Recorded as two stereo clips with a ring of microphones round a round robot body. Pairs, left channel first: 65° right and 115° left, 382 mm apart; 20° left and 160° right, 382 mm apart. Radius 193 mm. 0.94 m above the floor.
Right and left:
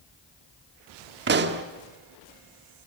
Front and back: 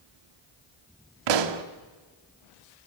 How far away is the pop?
About 1.5 m.